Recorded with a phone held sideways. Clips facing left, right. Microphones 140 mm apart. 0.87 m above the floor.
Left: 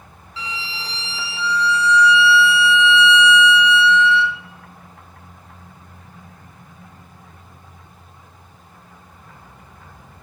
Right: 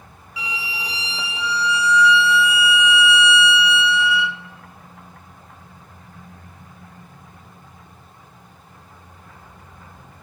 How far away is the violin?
About 0.9 m.